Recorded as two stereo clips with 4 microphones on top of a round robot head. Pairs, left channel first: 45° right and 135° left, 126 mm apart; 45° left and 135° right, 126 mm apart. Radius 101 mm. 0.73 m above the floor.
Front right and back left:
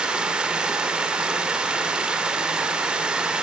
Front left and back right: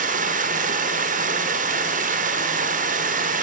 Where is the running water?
145° right, 1.9 m.